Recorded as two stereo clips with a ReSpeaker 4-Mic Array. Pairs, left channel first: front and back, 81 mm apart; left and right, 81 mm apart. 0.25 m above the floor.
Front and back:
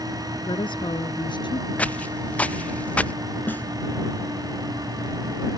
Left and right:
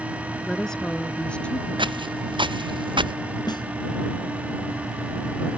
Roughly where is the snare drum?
Ahead left.